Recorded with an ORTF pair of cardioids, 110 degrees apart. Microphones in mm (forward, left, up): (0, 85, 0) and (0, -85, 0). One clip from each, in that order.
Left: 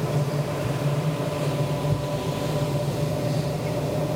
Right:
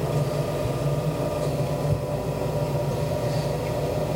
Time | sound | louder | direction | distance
0.0 | a machine running | right 1 dB | 20° right | 2.5 m